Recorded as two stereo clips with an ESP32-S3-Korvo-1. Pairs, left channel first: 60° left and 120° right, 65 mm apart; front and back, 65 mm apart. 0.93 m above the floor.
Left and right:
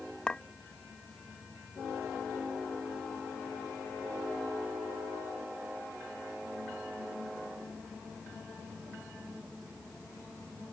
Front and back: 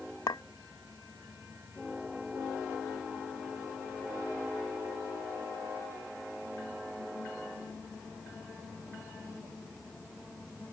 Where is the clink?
15° right.